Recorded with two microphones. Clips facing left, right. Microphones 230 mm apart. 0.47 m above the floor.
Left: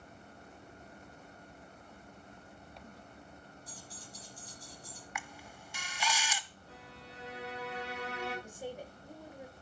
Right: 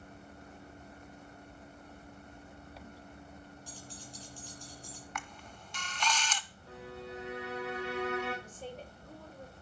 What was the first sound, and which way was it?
Keys jangling, 85° right.